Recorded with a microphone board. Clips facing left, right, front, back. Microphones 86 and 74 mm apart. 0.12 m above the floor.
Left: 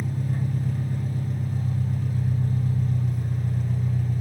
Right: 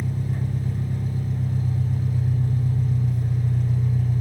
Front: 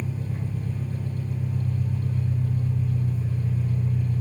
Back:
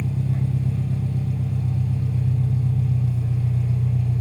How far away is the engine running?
About 4 m.